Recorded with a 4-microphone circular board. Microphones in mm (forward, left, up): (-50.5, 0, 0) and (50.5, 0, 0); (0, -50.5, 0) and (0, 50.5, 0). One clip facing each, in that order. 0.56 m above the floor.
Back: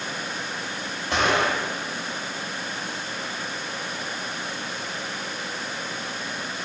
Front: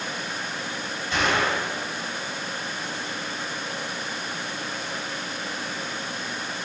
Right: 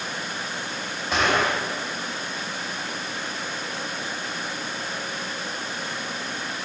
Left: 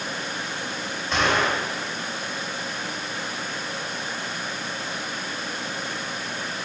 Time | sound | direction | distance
1.1 | a gunshot | 175° right | 2 m